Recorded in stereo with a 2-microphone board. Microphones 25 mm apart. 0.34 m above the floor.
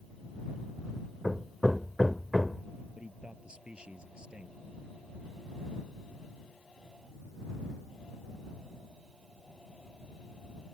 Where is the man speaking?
40° right (ahead or behind).